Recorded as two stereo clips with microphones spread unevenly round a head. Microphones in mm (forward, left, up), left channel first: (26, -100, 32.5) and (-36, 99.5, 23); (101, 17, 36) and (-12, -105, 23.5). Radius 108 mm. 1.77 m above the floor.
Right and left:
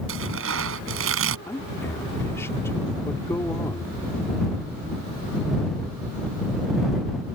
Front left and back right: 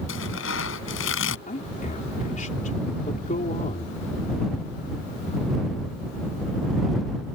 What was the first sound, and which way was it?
Tearing paper, 75° left.